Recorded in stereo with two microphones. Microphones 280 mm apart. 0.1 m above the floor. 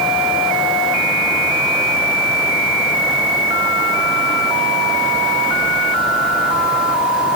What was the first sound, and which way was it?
Only background noise.